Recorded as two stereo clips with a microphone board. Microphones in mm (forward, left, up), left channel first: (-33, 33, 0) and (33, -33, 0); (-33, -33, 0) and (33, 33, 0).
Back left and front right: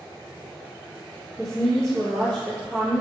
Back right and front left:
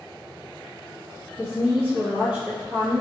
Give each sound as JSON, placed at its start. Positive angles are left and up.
{"t": 1.4, "sound": "a woman speaking", "azimuth_deg": 70, "distance_m": 1.2}